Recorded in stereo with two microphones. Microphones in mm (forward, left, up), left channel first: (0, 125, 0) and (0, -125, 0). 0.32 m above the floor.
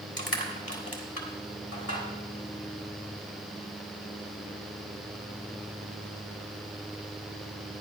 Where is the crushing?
60° left (ahead or behind), 2.0 m.